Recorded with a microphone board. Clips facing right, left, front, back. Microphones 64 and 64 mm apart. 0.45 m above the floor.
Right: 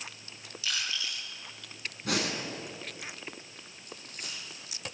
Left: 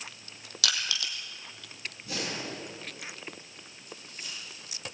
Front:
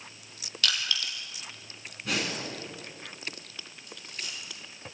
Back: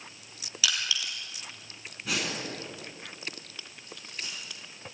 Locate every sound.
0.6 s crushing: 95° left, 3 m
2.0 s breathing: 95° right, 5 m
3.9 s a dropped coin: 125° right, 8.5 m